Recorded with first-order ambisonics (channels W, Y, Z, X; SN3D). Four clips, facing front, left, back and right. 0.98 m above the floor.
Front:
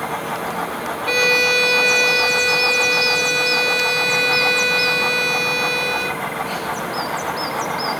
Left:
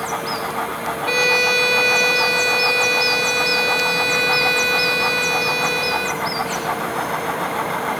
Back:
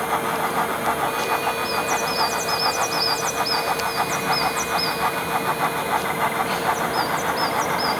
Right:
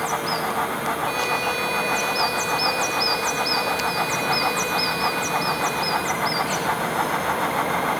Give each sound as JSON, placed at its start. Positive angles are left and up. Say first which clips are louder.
{"t": 1.1, "sound": "a violin", "louder": "left 11 dB, front 7 dB", "azimuth_deg": 35}